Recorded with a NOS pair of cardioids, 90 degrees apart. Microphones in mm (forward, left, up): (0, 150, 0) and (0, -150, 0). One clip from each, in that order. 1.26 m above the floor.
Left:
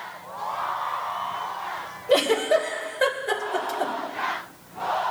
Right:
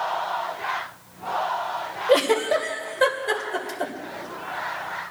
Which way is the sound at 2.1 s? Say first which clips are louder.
Even; 10° right.